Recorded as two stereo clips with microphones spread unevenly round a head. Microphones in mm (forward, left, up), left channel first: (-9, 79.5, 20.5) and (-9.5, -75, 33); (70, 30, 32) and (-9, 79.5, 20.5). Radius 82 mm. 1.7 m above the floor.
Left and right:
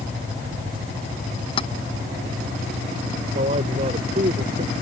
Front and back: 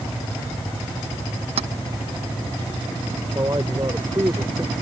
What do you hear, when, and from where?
1.6 s keys jangling: 145° left
3.4 s a man speaking: 140° right